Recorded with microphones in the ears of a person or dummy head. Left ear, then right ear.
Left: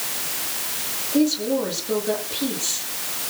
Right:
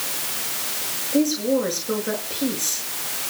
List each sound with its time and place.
1.1 s a woman speaking: 70° right (ahead or behind), 6.5 m